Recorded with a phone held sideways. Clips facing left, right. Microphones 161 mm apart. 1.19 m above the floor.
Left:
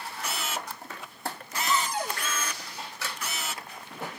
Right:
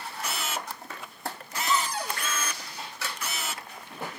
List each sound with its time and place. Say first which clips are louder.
1.7 s a cupboard door: even; 20° left (ahead or behind), 6 m